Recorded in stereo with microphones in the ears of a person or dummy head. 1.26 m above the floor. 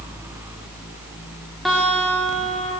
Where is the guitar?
5° right (ahead or behind), 2 m.